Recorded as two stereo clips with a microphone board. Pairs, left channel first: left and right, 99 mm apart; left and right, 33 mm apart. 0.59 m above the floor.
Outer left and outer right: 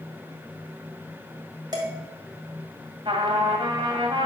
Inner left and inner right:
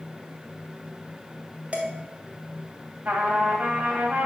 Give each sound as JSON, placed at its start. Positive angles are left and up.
{"t": 1.7, "sound": "dishes clattering", "side_deg": -40, "distance_m": 1.7}
{"t": 3.0, "sound": "a trumpet", "side_deg": -60, "distance_m": 2.0}